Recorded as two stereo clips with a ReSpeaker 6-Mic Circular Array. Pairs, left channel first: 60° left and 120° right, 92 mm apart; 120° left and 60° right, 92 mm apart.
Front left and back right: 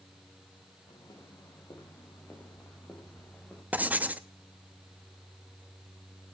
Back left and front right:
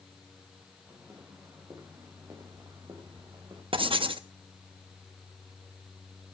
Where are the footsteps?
10° left, 5 m; by 3.6 s 20° right, 5 m.